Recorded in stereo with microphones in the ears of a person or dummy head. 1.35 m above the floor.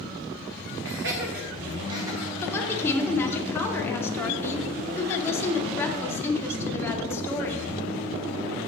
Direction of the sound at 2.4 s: 20° left (ahead or behind).